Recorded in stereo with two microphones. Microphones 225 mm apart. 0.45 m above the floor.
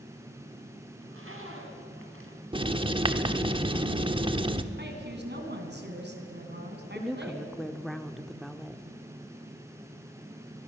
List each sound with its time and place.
1.0 s a zipper: 75° right (ahead or behind), 3.5 m
2.5 s writing: 25° right (ahead or behind), 1.0 m
4.8 s a woman speaking: 50° right (ahead or behind), 4 m
7.0 s a woman speaking: centre (ahead or behind), 0.7 m